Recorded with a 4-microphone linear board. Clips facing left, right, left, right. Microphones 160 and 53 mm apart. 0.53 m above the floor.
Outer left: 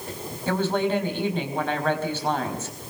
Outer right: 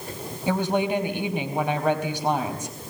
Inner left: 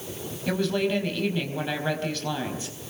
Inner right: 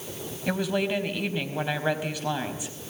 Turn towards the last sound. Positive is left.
turn(degrees=-15)  # may be behind; listen again after turning